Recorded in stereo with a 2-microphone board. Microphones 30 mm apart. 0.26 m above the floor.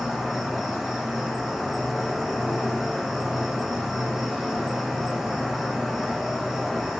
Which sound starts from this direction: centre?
An insect, at 0.0 s.